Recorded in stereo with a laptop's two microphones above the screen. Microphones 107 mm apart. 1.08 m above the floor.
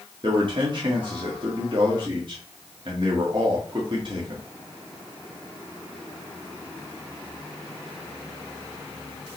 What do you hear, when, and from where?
0.2 s a man speaking: 45° right (ahead or behind), 1.8 m